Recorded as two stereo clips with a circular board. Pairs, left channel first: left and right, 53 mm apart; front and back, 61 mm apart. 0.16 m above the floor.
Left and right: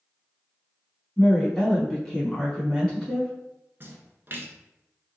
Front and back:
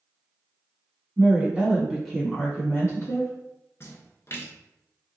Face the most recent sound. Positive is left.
turn(degrees=-45)